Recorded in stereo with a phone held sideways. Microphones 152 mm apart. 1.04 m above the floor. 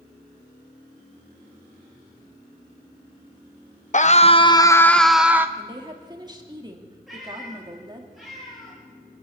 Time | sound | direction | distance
3.9 | a scream | 50° left (ahead or behind) | 0.8 m
5.6 | a woman speaking | 25° right (ahead or behind) | 2 m
7.1 | a cat meowing | centre (ahead or behind) | 10 m